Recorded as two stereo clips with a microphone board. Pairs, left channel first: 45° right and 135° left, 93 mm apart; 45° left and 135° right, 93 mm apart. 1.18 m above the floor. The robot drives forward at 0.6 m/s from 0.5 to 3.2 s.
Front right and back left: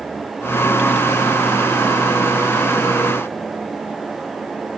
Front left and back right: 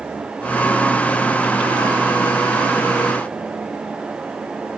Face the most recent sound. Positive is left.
No sound to turn to.